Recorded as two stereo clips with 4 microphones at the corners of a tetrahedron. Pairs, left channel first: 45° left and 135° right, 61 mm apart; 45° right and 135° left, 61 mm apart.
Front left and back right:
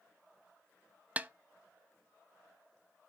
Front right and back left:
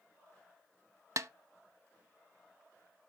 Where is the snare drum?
160° left, 0.5 m.